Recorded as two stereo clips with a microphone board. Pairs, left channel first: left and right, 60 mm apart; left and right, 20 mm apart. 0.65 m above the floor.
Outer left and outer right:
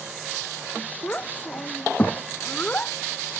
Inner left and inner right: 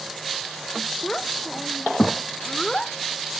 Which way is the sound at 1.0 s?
25° left (ahead or behind).